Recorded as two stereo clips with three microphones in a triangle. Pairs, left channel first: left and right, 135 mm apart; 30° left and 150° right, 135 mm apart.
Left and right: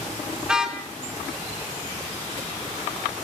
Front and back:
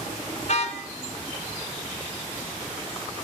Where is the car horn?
5° right, 3 m.